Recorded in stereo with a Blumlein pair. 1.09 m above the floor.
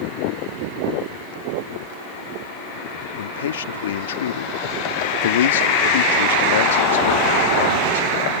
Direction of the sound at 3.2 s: 60° left.